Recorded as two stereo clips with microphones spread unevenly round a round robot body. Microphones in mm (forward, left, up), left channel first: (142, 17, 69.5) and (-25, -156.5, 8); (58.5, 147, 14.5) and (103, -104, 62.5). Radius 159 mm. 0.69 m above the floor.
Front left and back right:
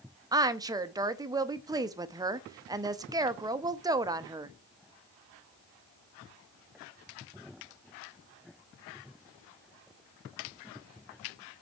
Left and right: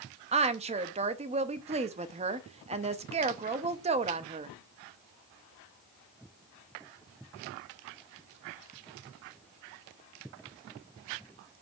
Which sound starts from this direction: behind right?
A woman speaking, at 0.3 s.